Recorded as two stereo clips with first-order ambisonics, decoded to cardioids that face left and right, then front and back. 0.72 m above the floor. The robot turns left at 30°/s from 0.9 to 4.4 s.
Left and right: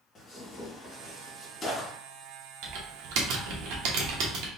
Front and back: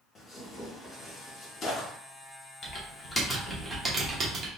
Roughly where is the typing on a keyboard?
Ahead right.